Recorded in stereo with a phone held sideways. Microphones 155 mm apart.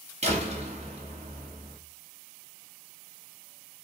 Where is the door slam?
45° right (ahead or behind), 2 m.